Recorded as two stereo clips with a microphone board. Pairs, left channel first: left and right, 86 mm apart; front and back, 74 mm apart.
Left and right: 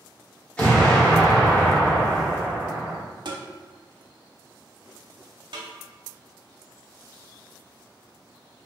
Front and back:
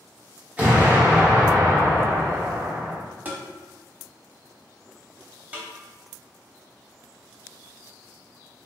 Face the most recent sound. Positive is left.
turn(degrees=-110)